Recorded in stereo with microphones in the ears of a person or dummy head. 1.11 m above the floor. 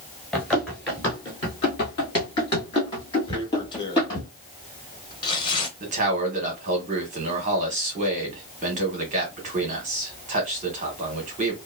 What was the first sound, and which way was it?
Running footsteps, 5° left (ahead or behind).